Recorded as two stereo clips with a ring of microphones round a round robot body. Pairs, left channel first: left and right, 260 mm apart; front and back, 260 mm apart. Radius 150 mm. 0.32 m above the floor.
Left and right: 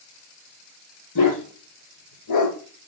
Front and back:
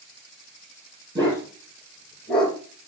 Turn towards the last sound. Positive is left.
turn(degrees=85)